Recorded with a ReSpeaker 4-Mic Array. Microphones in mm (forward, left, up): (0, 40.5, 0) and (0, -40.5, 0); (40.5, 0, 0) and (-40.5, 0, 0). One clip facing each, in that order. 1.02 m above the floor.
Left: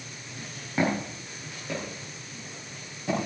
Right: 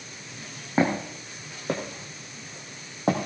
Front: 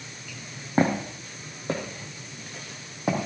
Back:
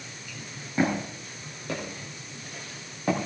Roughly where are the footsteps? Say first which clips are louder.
Right 3 dB, front 3 dB; ahead right.